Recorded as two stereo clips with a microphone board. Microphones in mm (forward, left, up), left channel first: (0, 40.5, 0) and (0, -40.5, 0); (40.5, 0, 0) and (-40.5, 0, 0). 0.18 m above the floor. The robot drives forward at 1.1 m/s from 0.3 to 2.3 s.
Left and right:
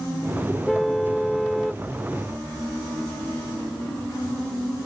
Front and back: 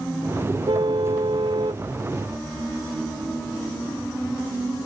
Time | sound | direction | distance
0.7 | a car horn | 175° left | ?